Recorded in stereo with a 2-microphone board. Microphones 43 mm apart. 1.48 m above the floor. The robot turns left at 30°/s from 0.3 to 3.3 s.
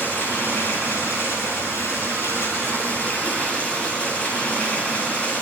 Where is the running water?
135° left, 9.5 m; by 5.4 s 45° left, 9.5 m.